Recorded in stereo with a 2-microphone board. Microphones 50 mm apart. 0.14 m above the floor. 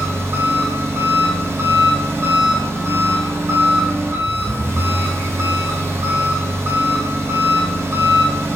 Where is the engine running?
65° right (ahead or behind), 3.5 m.